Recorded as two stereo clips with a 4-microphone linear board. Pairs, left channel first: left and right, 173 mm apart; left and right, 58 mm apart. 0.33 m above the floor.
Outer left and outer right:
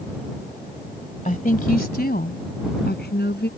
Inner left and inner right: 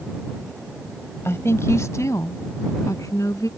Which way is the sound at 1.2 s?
50° left (ahead or behind).